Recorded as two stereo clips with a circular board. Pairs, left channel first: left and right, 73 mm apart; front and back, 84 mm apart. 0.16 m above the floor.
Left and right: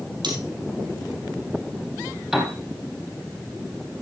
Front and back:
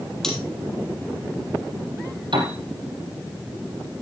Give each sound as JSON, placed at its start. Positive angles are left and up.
{"t": 0.2, "sound": "cutlery clinking", "azimuth_deg": -85, "distance_m": 3.5}
{"t": 2.3, "sound": "a piano", "azimuth_deg": -175, "distance_m": 3.5}